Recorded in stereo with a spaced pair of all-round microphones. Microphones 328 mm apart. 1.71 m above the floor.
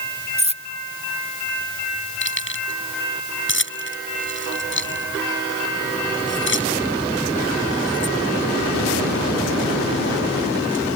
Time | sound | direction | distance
0.4 | cutlery clinking | 20° right (ahead or behind) | ?
2.2 | keys jangling | 35° left (ahead or behind) | ?